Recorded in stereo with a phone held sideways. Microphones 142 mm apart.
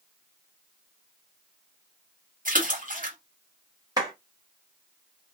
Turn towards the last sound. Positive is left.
turn(degrees=-25)  # may be behind; listen again after turning